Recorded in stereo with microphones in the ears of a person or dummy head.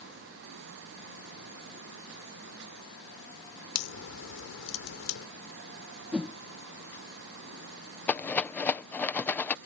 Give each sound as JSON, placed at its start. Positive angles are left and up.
{"t": 3.8, "sound": "a crack", "side_deg": 85}
{"t": 6.1, "sound": "a whoosh", "side_deg": -5}
{"t": 8.1, "sound": "a rattle", "side_deg": 10}